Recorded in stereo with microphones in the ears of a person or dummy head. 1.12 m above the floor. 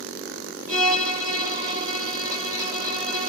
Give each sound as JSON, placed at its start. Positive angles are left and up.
{"t": 0.7, "sound": "a violin", "side_deg": -35, "distance_m": 1.4}